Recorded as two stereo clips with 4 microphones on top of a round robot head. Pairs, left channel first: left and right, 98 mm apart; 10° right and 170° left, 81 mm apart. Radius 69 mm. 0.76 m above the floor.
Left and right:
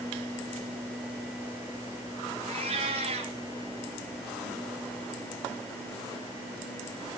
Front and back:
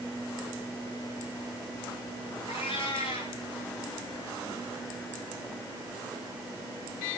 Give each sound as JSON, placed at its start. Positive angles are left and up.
{"t": 2.5, "sound": "a cat meowing", "azimuth_deg": -50, "distance_m": 3.0}